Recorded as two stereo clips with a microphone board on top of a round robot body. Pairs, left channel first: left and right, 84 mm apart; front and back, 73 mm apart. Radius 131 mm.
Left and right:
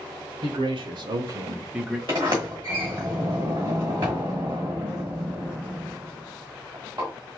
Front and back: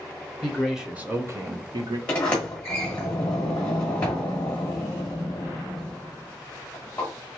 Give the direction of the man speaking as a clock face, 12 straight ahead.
3 o'clock.